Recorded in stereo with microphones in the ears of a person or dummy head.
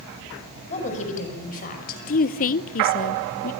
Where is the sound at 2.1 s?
45° left (ahead or behind), 0.7 m.